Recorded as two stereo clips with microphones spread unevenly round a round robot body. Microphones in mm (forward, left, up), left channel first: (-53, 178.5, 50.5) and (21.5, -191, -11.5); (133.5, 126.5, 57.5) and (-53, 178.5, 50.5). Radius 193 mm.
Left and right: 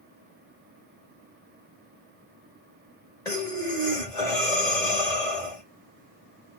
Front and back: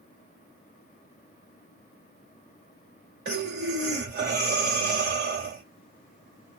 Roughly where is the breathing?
Behind.